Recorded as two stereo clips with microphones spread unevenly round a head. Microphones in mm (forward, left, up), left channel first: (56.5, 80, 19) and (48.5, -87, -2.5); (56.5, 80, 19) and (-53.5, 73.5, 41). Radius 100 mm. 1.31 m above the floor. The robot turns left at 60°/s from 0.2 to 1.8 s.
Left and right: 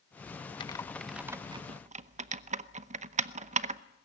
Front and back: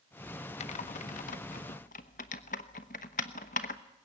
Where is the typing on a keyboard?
30° left, 0.8 m; by 3.8 s 45° right, 0.8 m.